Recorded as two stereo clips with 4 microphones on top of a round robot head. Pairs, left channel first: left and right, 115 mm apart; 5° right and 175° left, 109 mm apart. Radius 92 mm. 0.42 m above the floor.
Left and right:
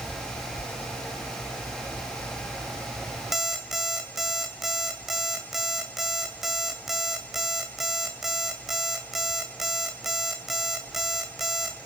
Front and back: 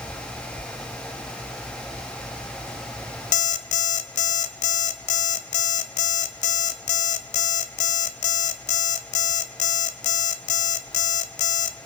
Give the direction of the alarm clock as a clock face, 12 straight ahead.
12 o'clock.